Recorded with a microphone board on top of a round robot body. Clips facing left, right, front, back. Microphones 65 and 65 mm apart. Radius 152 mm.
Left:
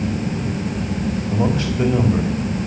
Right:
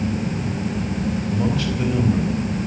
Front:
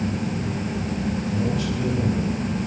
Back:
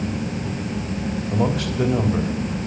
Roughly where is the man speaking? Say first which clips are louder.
Left 4 dB, back 2 dB; behind left.